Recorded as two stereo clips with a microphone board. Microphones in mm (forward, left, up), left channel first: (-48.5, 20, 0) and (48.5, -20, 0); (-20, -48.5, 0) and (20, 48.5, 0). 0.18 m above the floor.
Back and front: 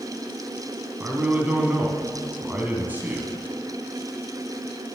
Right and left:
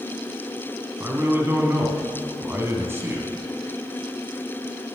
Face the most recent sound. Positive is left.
turn(degrees=30)